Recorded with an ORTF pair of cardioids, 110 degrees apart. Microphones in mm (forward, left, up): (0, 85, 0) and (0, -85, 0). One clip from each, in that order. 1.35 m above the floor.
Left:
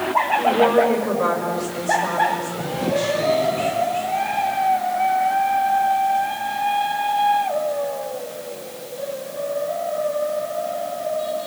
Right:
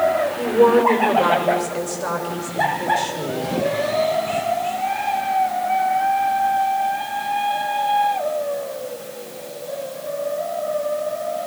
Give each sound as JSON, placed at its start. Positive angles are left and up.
{"t": 0.4, "sound": "a woman speaking", "azimuth_deg": -30, "distance_m": 6.0}